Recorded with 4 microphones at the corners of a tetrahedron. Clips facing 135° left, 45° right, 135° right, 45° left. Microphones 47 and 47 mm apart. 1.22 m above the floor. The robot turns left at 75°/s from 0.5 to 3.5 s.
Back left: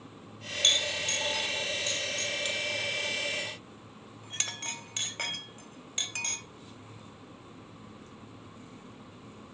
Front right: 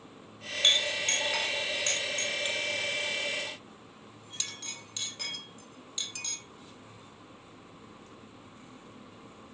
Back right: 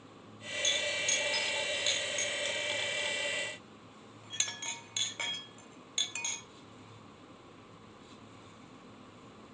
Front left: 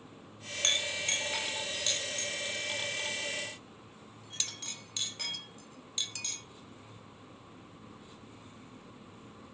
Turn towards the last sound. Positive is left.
turn(degrees=170)